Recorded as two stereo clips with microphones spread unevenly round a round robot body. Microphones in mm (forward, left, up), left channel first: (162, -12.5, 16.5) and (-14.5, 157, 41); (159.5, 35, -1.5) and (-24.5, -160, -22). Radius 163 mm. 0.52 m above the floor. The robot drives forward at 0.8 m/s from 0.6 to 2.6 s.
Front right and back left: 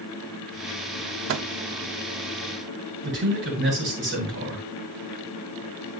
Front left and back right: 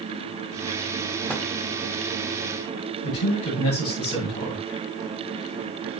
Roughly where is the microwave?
Behind left.